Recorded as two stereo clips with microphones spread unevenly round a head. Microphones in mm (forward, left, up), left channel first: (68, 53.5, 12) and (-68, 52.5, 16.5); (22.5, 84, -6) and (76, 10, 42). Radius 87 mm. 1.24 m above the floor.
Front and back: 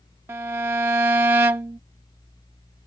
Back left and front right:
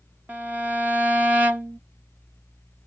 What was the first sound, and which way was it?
A violin, 105° right.